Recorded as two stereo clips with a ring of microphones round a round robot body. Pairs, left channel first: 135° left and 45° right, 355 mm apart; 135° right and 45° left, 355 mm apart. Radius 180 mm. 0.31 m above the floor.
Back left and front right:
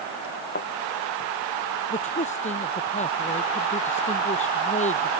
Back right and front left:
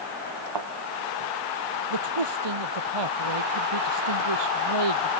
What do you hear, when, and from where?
0.6 s a thud: 70° left
1.9 s a man speaking: 65° left